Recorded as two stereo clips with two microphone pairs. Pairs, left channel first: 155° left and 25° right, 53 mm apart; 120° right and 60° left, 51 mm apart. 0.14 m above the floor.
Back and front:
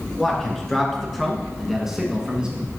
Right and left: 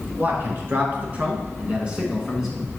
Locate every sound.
0.2 s a man speaking: 85° left, 2 m; by 2.7 s 35° right, 1.4 m